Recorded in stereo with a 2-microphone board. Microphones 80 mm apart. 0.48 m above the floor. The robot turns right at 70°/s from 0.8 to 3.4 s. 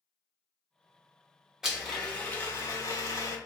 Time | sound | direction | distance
1.6 | a blender | 10° right | 0.8 m